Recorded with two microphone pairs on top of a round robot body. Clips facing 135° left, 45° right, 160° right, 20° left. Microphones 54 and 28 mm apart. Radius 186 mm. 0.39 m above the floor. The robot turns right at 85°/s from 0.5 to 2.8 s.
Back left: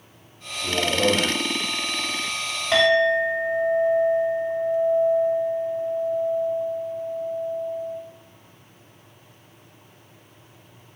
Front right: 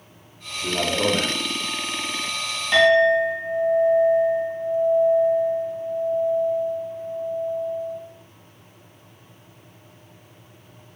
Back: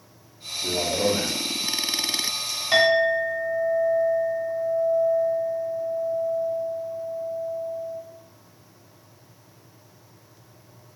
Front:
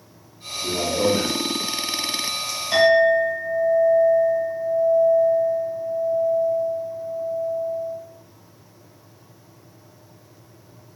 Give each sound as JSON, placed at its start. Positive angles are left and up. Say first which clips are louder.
{"t": 0.6, "sound": "a man speaking", "louder": "back left 1 dB, front 2 dB", "azimuth_deg": -95, "distance_m": 1.2}
{"t": 2.7, "sound": "a clink", "louder": "front right 3 dB, front 4 dB", "azimuth_deg": 140, "distance_m": 1.9}